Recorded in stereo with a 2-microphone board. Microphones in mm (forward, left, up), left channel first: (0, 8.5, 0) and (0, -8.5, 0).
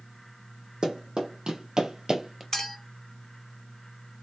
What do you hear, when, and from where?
0.8 s running footsteps: 60° right (ahead or behind), 1.4 m; by 2.4 s 25° right (ahead or behind), 0.6 m
2.5 s a clink: 30° left (ahead or behind), 1.1 m